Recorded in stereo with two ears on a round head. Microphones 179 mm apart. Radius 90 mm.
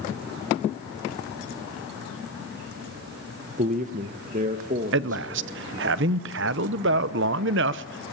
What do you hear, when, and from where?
3.6 s a man speaking: 40° right (ahead or behind), 0.7 m
4.9 s a man speaking: 60° right (ahead or behind), 0.6 m